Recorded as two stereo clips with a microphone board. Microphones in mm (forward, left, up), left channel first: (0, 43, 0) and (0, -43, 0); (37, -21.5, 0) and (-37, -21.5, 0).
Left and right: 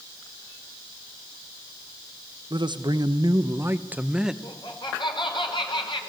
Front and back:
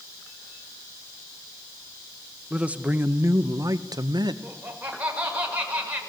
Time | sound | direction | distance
2.5 | a man speaking | 105° right | 1.1 m
4.4 | laughter | 110° left | 4.5 m